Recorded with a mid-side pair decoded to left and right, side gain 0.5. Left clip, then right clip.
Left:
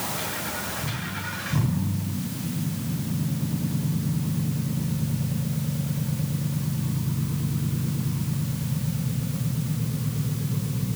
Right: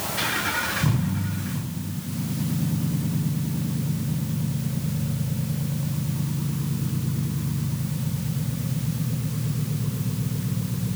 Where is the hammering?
I don't hear hammering.